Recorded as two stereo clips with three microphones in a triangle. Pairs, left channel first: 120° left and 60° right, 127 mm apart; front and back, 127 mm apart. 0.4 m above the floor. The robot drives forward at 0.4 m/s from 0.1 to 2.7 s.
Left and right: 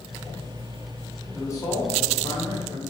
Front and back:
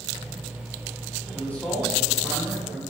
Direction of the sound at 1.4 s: 65° left.